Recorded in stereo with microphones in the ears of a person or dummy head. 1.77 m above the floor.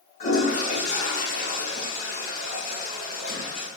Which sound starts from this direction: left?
A toilet flushing, at 0.2 s.